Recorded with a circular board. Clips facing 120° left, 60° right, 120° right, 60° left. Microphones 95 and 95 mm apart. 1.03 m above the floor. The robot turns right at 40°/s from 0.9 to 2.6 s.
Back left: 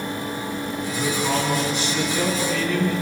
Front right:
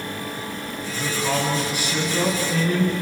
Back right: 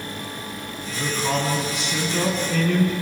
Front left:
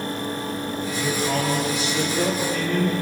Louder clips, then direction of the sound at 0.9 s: Back left 1 dB, back right 1 dB; 175° right.